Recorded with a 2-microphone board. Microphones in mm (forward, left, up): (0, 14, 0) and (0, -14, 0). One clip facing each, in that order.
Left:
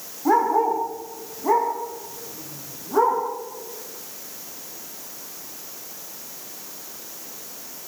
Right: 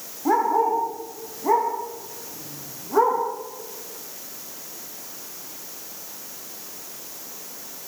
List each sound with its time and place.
0.2 s a dog barking: 5° left (ahead or behind), 7.5 m; by 3.2 s 5° right (ahead or behind), 8.5 m